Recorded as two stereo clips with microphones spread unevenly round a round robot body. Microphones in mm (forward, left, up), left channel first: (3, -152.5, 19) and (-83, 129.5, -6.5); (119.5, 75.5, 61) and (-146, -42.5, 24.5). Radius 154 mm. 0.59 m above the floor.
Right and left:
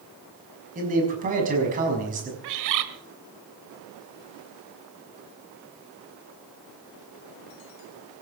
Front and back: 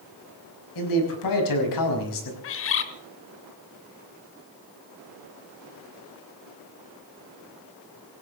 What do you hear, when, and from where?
0.8 s a man speaking: 40° left, 5.5 m
2.4 s a bird: 75° left, 1.5 m